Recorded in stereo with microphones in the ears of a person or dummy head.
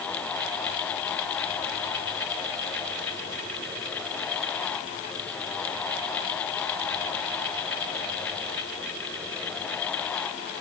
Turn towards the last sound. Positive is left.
No sound to turn to.